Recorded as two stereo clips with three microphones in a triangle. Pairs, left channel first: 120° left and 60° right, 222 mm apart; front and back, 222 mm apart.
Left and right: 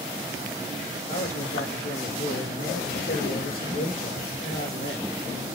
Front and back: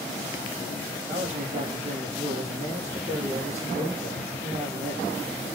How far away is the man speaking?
About 4.5 m.